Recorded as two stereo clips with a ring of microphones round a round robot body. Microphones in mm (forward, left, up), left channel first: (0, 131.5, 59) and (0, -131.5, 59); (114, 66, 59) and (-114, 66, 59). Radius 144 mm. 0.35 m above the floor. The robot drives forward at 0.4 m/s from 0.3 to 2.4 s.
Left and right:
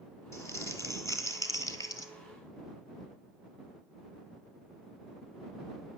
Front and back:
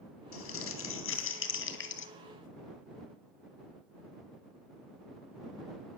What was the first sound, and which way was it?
Crumpling, 10° left.